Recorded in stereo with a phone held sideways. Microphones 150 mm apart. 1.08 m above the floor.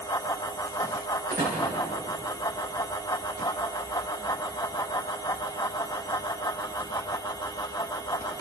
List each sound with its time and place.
0.0 s a fan: 25° left (ahead or behind), 0.9 m
1.3 s a door slam: 75° right (ahead or behind), 8 m